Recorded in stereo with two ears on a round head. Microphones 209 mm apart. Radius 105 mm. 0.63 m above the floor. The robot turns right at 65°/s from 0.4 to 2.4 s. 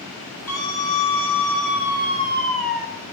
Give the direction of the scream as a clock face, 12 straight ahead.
12 o'clock.